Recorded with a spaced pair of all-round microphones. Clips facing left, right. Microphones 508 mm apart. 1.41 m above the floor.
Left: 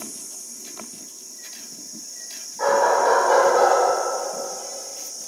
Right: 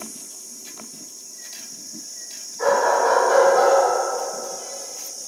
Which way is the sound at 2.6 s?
75° left (ahead or behind).